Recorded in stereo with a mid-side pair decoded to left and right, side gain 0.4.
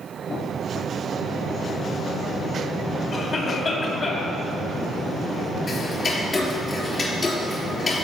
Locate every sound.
3.1 s a cough: 55° left, 4 m
5.7 s ticking: 45° left, 3.5 m